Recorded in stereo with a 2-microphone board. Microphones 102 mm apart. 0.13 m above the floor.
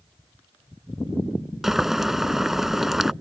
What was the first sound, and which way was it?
Boiling, 5° right (ahead or behind).